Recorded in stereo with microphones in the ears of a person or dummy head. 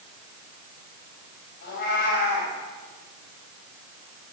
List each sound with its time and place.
1.6 s a cat meowing: 55° left (ahead or behind), 5.5 m